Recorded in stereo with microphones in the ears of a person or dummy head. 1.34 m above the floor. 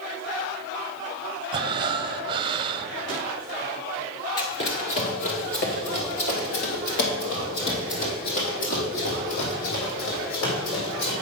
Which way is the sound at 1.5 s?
25° right (ahead or behind).